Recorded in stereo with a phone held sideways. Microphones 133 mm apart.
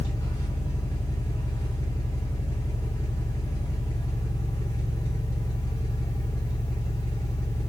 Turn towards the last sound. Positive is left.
turn(degrees=25)  # may be behind; listen again after turning